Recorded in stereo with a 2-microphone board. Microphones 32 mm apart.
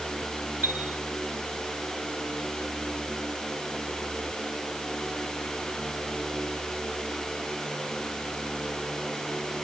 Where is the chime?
80° right, 2.5 m.